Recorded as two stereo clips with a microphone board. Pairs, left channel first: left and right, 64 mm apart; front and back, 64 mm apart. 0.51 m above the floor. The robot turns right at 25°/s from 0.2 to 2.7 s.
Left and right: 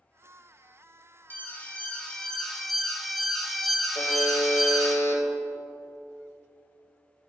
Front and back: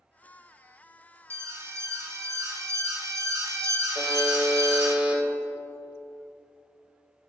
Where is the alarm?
140° left, 1.1 m; by 5.0 s 175° left, 1.1 m.